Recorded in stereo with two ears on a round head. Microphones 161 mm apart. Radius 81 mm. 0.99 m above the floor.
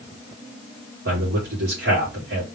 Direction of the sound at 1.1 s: 60° right (ahead or behind).